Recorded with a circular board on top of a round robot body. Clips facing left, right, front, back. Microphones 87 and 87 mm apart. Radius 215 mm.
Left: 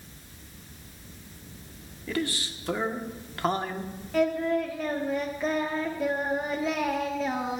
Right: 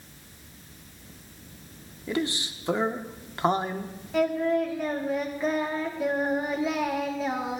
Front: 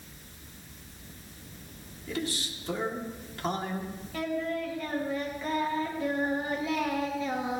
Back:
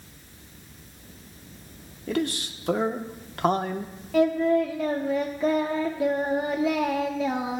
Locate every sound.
2.1 s a man speaking: 160° right, 1.2 m
4.1 s singing: 175° right, 1.1 m